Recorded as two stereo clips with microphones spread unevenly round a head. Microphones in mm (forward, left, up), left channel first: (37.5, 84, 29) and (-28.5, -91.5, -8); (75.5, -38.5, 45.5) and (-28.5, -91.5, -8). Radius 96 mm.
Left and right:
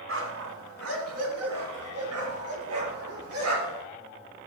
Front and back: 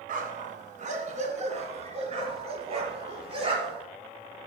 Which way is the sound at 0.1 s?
140° right.